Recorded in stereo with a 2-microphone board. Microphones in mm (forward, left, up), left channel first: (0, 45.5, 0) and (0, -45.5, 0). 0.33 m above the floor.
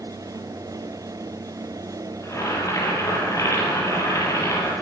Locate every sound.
2.2 s boiling: 35° left (ahead or behind), 8.5 m